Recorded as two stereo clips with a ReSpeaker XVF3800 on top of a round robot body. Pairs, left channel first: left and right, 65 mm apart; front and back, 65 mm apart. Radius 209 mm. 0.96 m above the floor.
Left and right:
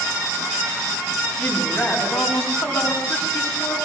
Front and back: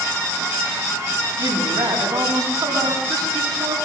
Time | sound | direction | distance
1.4 | a woman speaking | 155° left | 9.5 m